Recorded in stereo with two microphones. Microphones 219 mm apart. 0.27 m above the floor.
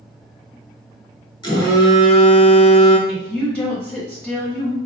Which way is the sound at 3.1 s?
5° left (ahead or behind).